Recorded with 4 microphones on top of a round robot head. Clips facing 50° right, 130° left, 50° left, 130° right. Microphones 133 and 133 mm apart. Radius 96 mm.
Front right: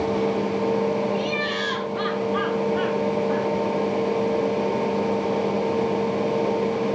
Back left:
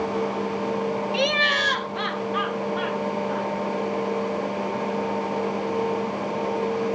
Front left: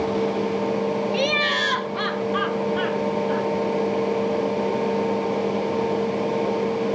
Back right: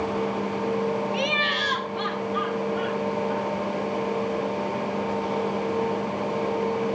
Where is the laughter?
110° left, 1.3 m; by 3.5 s 65° left, 3.5 m.